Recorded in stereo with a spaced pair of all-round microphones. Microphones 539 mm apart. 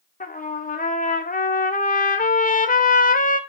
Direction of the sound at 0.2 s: 15° left (ahead or behind).